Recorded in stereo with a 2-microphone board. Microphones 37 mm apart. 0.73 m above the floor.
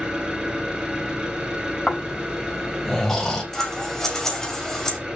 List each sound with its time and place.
0.0 s an engine running: 20° right (ahead or behind), 5 m
1.9 s snoring: 15° left (ahead or behind), 4 m
3.5 s scissors: 15° left (ahead or behind), 2.5 m